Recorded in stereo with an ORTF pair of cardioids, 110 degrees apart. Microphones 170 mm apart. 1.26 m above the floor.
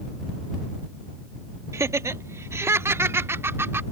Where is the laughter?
15° right.